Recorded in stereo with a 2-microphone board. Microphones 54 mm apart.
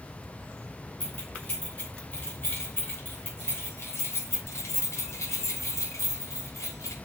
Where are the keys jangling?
25° left (ahead or behind), 3.5 m; by 6.9 s 85° left, 3 m.